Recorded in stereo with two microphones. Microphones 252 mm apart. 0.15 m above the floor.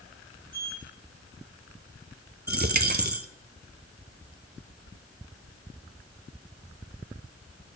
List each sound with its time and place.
0.5 s a sliding door: 80° left, 4 m
2.5 s a dropped coin: 40° right (ahead or behind), 0.5 m